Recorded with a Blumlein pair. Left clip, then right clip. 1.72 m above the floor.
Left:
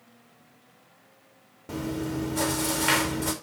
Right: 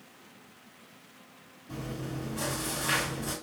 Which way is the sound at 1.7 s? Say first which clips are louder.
Left 8 dB; 50° left.